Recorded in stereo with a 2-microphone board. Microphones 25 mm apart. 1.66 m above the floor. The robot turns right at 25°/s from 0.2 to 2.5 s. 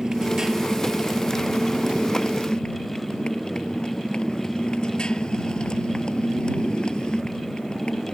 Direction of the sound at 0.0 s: 25° right.